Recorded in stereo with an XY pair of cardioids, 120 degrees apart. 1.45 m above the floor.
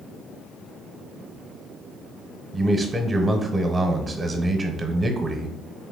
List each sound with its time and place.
2.5 s a man speaking: 25° right, 1.0 m